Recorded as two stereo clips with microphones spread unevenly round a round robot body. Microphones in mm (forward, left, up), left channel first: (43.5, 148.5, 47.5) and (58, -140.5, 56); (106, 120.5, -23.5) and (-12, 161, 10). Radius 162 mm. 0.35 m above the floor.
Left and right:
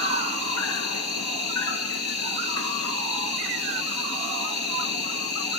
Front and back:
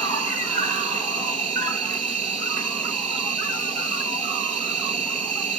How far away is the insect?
About 2 m.